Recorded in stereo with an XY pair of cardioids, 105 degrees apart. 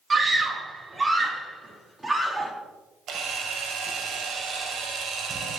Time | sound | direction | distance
0.1 | a scream | 30° right | 3 m
3.1 | a camera shutter | 60° right | 3 m